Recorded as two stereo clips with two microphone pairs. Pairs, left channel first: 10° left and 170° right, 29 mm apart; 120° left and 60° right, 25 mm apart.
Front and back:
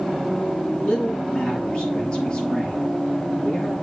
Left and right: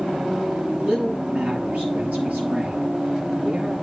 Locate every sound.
0.7 s a man speaking: 50° right, 6 m